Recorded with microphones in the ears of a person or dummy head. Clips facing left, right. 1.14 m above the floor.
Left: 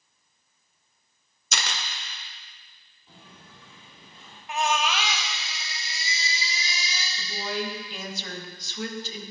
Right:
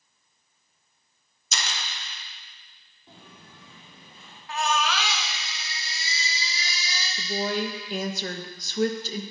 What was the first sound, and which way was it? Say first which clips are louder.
A camera shutter: left 1 dB; 45° left (ahead or behind).